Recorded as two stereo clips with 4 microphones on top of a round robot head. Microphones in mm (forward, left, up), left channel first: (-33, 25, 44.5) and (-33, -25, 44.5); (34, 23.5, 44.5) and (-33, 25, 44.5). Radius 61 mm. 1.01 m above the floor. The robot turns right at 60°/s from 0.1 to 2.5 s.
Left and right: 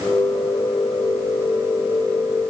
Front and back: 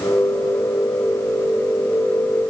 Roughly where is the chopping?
I don't hear chopping.